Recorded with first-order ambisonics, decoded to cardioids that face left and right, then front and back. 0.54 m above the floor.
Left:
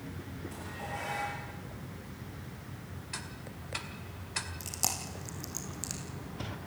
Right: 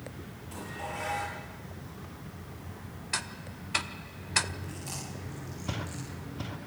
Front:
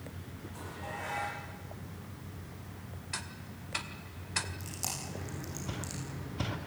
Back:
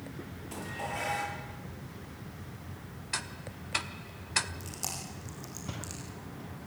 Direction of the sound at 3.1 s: 120° right.